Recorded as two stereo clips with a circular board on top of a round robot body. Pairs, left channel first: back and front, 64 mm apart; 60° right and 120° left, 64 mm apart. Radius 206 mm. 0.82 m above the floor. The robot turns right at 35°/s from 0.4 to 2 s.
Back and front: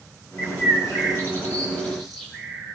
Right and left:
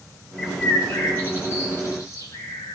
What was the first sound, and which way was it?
A bird, 150° right.